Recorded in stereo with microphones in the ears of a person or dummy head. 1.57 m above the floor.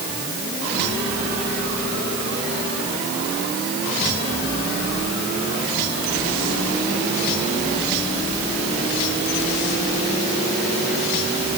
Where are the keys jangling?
I don't hear keys jangling.